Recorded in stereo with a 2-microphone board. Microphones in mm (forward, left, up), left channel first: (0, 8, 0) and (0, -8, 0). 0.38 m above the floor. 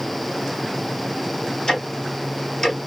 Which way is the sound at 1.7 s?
40° left (ahead or behind).